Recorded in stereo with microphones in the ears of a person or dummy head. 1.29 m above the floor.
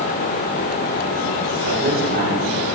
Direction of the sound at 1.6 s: 55° right (ahead or behind).